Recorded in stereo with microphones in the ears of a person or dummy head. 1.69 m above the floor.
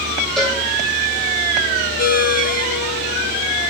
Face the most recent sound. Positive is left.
turn(degrees=45)  # may be behind; listen again after turning